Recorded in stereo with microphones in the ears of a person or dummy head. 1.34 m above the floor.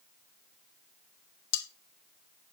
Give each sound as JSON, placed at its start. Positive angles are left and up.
{"t": 1.5, "sound": "cutlery clinking", "side_deg": 70, "distance_m": 1.0}